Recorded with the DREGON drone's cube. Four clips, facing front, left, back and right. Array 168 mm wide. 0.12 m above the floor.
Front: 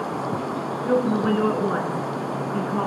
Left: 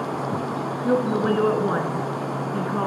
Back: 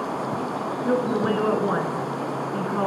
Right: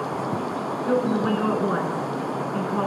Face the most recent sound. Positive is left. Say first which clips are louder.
# left 1 dB, front 2 dB
turn(degrees=115)